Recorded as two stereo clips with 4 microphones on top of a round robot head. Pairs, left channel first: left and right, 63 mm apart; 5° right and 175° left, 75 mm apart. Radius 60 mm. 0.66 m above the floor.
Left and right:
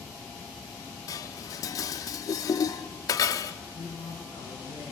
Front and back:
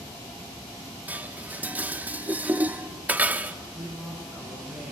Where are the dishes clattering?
105° left, 0.7 m.